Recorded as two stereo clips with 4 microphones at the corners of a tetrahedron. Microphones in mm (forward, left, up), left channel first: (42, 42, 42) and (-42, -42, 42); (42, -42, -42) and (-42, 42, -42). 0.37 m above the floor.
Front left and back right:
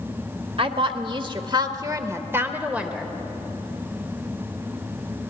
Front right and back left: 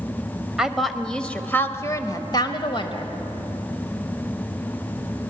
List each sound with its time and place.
0.6 s a woman speaking: 140° right, 1.3 m; by 3.1 s 55° right, 1.4 m